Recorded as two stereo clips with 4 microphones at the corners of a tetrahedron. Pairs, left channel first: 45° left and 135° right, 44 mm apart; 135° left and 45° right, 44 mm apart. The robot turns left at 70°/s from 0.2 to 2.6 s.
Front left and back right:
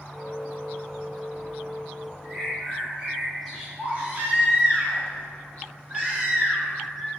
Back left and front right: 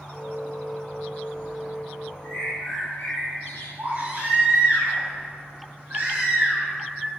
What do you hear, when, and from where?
2.2 s a bird: 165° left, 1.6 m; by 3.7 s 140° left, 1.6 m
3.8 s a baby crying: 75° right, 2.0 m